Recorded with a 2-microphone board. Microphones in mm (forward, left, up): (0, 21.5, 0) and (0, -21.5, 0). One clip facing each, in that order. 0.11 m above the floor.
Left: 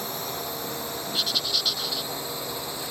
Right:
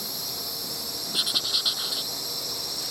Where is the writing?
15° right (ahead or behind).